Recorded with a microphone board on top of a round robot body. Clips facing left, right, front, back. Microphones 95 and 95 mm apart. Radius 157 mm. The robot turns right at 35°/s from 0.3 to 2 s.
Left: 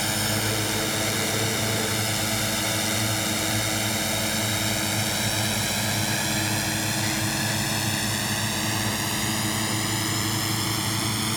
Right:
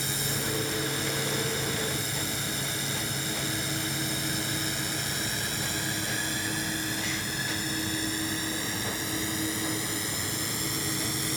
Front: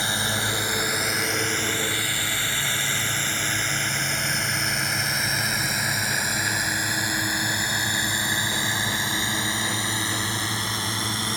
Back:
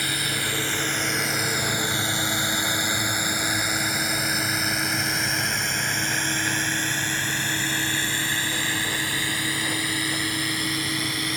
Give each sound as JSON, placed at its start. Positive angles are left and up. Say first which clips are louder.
{"t": 0.0, "sound": "a drone", "louder": "left 6 dB, front 2 dB", "azimuth_deg": 65}